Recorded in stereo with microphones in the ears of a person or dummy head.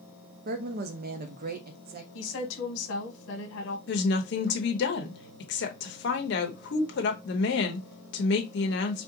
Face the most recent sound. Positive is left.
turn(degrees=55)  # may be behind; listen again after turning